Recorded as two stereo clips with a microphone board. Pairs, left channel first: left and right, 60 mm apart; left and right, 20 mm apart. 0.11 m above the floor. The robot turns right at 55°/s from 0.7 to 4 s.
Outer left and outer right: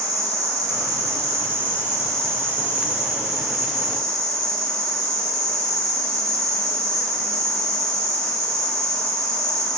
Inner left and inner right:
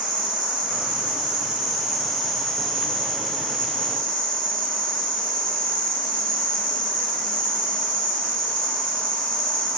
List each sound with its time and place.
0.0 s an insect: 80° right, 1.3 m; by 9.8 s 105° left, 1.3 m